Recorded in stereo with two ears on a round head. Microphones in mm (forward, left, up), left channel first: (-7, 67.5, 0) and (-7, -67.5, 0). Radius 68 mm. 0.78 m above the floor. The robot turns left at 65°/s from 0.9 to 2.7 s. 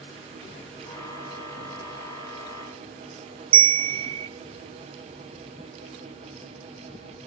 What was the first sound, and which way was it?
A bell, 35° right (ahead or behind).